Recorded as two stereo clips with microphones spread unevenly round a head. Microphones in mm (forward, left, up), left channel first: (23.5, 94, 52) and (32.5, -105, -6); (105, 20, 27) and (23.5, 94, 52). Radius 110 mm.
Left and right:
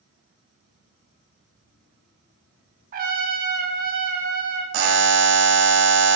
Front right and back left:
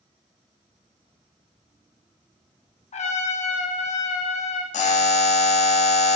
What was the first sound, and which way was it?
A trumpet, 45° right.